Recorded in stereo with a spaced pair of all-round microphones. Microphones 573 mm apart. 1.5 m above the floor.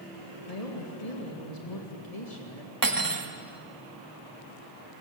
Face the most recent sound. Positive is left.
turn(degrees=-35)  # may be behind; listen again after turning